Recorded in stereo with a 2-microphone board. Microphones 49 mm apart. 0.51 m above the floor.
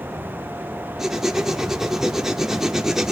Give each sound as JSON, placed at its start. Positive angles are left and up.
{"t": 1.0, "sound": "writing", "side_deg": -10, "distance_m": 0.7}